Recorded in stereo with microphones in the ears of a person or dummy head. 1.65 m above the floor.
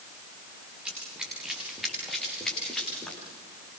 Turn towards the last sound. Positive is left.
turn(degrees=0)  # may be behind; listen again after turning